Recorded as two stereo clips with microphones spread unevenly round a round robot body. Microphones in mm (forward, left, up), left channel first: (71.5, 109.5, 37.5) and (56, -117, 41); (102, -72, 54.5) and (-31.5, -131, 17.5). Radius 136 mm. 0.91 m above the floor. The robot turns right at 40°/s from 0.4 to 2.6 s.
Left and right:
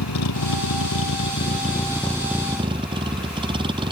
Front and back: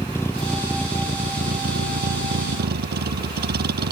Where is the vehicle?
105° left; by 3.9 s 165° right.